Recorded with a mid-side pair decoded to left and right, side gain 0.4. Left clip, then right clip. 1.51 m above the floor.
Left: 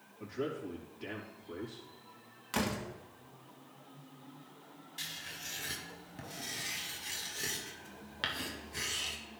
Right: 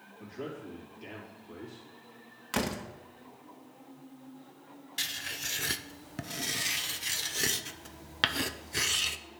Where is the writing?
70° right, 0.5 m.